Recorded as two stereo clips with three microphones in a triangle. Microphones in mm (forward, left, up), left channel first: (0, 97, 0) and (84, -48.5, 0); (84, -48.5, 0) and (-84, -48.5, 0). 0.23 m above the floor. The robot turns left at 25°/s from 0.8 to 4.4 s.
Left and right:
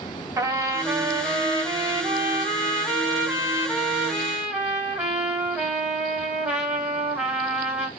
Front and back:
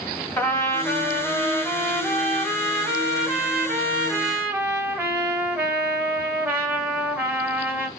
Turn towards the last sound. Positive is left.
turn(degrees=-135)